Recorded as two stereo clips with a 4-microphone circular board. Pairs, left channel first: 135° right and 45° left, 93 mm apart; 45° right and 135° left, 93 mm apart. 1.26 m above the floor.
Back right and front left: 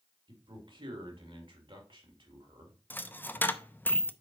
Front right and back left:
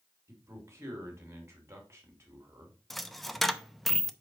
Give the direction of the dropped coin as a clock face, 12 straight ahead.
4 o'clock.